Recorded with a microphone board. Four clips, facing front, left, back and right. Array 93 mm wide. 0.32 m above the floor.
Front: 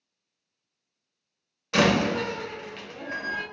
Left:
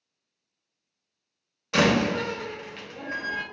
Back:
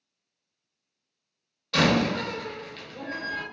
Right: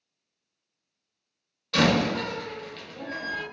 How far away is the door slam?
About 0.5 m.